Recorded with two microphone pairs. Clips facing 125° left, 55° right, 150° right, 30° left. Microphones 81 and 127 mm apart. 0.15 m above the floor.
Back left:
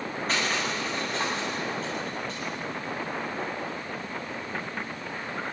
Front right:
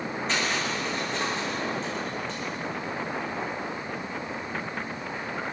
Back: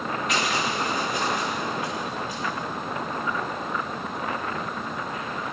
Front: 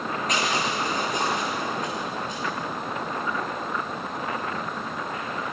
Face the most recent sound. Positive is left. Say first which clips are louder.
# even, front 1 dB
turn(degrees=80)